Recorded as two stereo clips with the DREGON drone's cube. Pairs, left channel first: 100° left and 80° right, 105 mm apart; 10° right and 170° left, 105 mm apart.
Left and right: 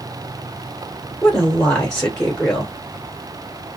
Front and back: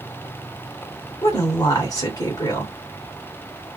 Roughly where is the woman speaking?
Ahead.